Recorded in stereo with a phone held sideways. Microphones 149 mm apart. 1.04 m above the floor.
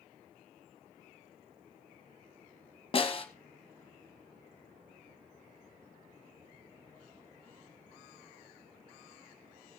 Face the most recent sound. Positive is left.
turn(degrees=40)  # may be behind; listen again after turning